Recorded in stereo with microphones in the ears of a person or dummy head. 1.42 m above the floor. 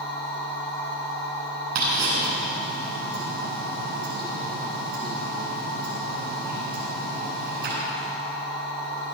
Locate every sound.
0.0 s a machine running: 25° left (ahead or behind), 4 m
1.8 s ticking: 65° right (ahead or behind), 6.5 m